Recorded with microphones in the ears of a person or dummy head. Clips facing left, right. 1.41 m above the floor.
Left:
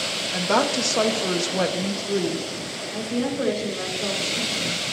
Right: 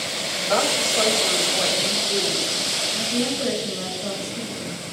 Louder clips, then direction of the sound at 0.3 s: Left 1 dB; 80° left.